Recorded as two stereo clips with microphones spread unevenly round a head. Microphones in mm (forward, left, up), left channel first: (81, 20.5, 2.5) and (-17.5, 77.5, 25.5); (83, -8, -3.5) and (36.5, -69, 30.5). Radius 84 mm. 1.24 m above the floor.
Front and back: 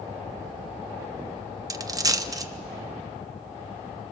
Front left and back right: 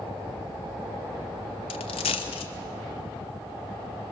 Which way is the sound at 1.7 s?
105° left.